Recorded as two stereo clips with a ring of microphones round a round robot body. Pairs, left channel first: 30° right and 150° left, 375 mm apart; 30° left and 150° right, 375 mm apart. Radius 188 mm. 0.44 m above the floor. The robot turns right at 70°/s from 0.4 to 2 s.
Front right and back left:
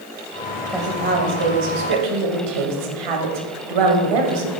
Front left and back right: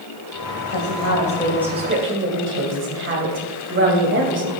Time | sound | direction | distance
0.7 | a woman speaking | 60° left | 2.5 m